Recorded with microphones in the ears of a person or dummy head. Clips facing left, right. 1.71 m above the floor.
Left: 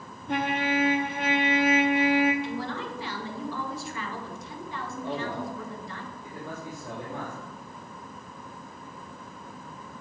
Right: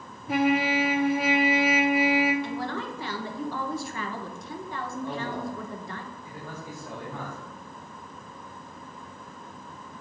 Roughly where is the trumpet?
Centre.